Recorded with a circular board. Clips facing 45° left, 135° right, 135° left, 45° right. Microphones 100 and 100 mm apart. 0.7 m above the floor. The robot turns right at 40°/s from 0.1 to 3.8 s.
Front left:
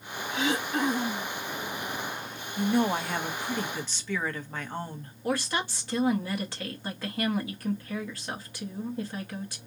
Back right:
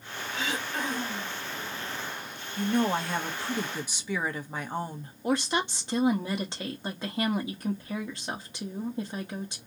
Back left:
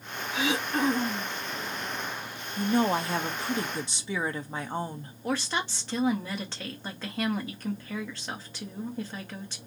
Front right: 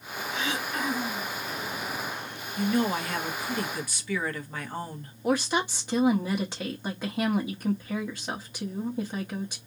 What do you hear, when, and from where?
0.3 s throat clearing: 55° left, 1.1 m; by 1.4 s 95° left, 1.1 m
2.6 s a woman speaking: 115° left, 0.6 m; by 5.1 s 165° left, 0.6 m
5.2 s a woman speaking: 105° right, 0.8 m